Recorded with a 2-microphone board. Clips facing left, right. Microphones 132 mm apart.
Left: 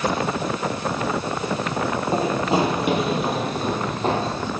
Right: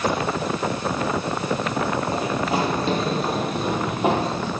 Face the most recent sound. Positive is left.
turn(degrees=-15)  # may be behind; listen again after turning